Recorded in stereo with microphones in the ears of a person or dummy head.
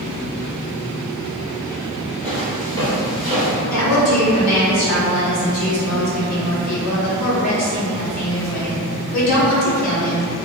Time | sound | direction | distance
2.2 | footsteps | 5° left (ahead or behind) | 1.8 m
3.7 | a woman speaking | 80° left | 1.1 m